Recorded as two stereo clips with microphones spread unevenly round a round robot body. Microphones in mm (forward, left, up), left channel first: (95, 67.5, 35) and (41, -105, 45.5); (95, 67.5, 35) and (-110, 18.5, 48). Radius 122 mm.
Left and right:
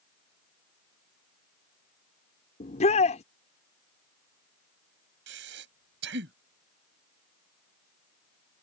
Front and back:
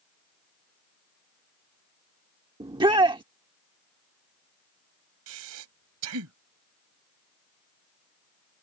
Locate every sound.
2.6 s a shout: 125° left
5.3 s breathing: 145° right